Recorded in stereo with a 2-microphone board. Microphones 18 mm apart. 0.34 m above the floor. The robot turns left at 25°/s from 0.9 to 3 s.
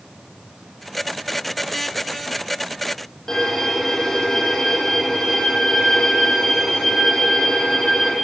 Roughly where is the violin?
Left.